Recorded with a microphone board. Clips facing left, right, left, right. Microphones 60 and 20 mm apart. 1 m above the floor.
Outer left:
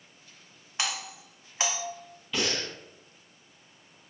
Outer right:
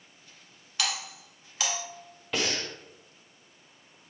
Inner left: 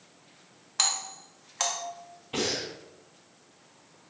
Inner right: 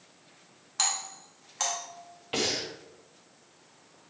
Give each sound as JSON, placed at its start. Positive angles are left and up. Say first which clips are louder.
{"t": 0.8, "sound": "a doorbell", "louder": "even, inner left 2 dB", "side_deg": 25, "distance_m": 0.8}
{"t": 2.3, "sound": "breathing", "louder": "even, inner right 1 dB", "side_deg": -70, "distance_m": 1.4}